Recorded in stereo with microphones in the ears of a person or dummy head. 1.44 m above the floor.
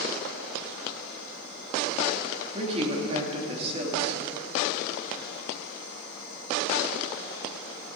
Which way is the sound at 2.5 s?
30° right (ahead or behind).